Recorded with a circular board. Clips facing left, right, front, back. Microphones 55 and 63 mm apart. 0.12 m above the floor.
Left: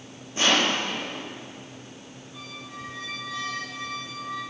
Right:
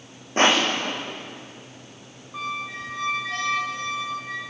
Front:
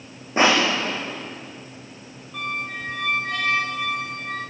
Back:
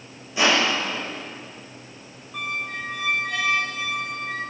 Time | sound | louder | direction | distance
0.4 | crushing | right 3 dB, front 2 dB | 45° right | 6 m
2.3 | a squeak | right 11 dB, even | 95° right | 2 m